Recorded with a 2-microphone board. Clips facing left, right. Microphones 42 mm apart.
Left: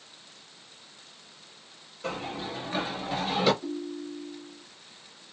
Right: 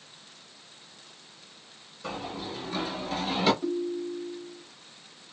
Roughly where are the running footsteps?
Left.